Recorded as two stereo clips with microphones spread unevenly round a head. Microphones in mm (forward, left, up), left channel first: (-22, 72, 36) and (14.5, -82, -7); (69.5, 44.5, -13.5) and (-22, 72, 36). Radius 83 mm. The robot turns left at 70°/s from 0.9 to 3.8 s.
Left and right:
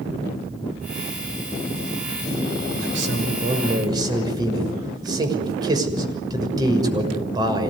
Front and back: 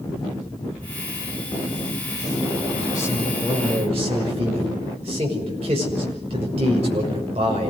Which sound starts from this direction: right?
A man speaking, at 2.8 s.